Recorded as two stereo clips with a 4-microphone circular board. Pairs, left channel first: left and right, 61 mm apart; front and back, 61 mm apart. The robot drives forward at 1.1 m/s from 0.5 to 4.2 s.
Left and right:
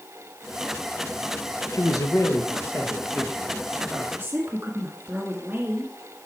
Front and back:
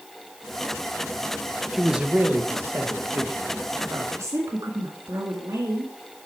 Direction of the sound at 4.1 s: 150° right.